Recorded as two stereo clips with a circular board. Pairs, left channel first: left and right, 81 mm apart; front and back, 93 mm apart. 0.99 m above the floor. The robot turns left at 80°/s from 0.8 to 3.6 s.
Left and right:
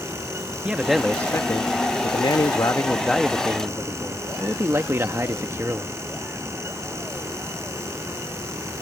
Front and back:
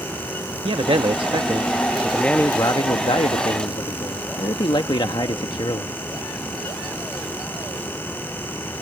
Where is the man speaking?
165° right; by 5.9 s 30° right.